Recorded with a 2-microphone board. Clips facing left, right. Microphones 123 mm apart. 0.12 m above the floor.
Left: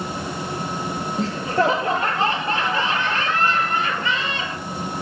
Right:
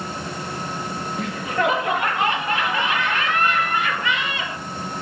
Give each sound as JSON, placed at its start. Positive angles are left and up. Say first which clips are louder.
{"t": 1.2, "sound": "laughter", "louder": "left 3 dB", "side_deg": 30, "distance_m": 2.5}